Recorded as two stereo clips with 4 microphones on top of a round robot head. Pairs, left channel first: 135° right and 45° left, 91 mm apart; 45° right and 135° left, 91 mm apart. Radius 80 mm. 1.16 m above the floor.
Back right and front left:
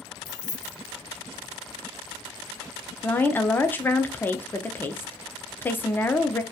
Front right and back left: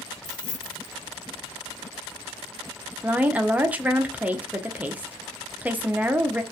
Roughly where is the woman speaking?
Behind.